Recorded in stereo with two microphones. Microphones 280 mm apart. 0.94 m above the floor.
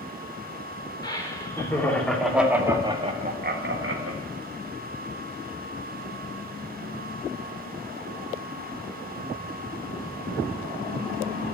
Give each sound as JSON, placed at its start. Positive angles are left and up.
{"t": 1.0, "sound": "laughter", "side_deg": 15, "distance_m": 3.5}